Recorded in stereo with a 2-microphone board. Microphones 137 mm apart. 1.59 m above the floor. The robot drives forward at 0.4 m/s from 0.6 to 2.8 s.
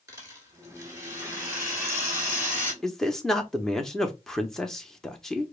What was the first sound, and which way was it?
A rattle, 25° right (ahead or behind).